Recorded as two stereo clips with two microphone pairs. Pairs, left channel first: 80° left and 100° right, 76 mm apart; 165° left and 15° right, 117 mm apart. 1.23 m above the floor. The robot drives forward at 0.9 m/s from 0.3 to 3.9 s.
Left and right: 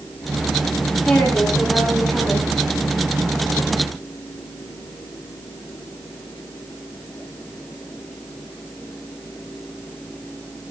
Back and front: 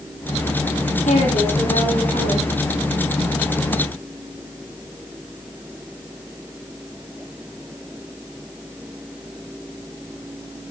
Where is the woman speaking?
165° left, 6.5 m.